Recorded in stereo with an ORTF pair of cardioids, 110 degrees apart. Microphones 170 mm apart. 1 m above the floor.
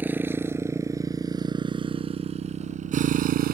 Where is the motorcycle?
10° right; by 3.5 s 60° right.